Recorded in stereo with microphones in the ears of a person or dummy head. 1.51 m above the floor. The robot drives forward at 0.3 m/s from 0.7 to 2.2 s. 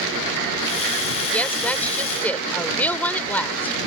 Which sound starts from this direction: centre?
A woman speaking, at 1.3 s.